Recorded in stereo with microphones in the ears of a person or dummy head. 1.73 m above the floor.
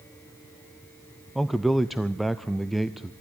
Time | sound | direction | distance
1.4 | a man speaking | 5° right (ahead or behind) | 0.5 m